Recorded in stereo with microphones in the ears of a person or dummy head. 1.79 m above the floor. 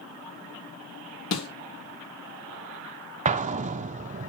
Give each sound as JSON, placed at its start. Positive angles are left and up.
{"t": 1.3, "sound": "a snare drum", "side_deg": 65, "distance_m": 3.5}
{"t": 3.2, "sound": "an explosion", "side_deg": -40, "distance_m": 0.7}